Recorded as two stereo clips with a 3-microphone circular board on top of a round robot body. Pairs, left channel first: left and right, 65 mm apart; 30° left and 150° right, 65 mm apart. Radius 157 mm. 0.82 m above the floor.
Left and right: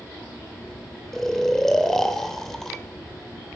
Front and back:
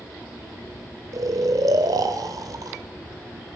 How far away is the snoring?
About 0.8 m.